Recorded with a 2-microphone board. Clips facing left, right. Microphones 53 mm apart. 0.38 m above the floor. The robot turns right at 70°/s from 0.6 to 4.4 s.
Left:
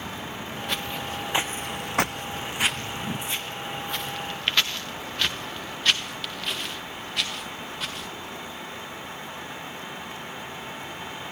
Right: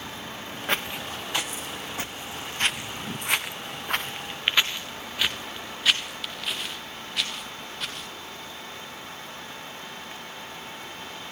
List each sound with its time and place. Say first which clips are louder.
0.7 s footsteps: right 3 dB; 35° right (ahead or behind), 1.8 m; by 8.1 s 5° left (ahead or behind), 5 m